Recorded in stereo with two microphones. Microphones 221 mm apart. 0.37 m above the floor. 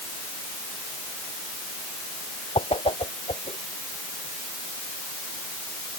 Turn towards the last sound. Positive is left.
turn(degrees=25)  # may be behind; listen again after turning